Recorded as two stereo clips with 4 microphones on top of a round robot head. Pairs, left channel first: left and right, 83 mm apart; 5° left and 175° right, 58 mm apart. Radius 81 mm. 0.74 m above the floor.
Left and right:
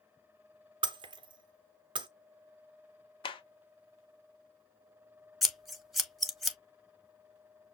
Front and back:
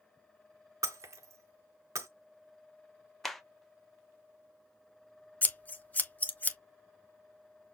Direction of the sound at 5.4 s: Straight ahead.